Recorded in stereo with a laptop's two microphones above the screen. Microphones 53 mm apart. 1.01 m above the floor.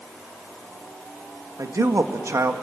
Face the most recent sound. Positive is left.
turn(degrees=-65)  # may be behind; listen again after turning